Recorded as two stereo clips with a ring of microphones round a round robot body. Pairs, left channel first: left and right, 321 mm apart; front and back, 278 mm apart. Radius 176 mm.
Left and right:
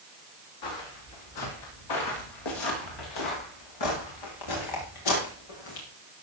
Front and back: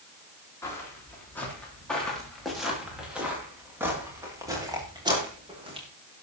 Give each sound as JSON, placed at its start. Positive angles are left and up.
{"t": 0.6, "sound": "footsteps", "azimuth_deg": 80, "distance_m": 7.5}